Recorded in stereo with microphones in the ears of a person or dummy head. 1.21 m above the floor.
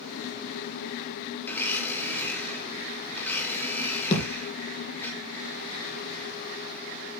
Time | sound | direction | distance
1.4 | a blender | 10° left (ahead or behind) | 1.9 m
4.1 | a thud | 35° left (ahead or behind) | 2.5 m